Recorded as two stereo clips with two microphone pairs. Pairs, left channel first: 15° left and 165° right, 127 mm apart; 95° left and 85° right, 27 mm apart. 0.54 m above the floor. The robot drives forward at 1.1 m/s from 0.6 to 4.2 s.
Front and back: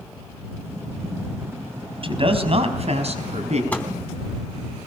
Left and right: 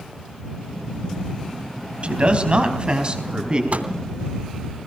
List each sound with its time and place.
2.0 s a man speaking: 120° right, 4 m; by 3.6 s 140° right, 5 m
3.7 s a microwave: 60° right, 3 m; by 3.9 s 65° right, 3 m